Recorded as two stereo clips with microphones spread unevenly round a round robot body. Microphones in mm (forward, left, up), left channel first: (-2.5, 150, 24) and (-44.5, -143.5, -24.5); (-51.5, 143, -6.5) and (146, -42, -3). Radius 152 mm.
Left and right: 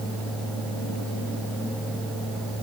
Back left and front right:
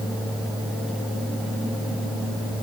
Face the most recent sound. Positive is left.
No sound to turn to.